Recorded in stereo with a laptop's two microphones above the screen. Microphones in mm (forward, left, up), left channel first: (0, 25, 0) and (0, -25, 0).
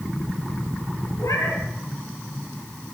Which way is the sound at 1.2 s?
80° left.